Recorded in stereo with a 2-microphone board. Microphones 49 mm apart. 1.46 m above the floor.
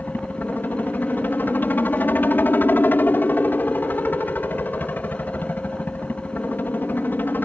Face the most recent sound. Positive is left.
turn(degrees=40)  # may be behind; listen again after turning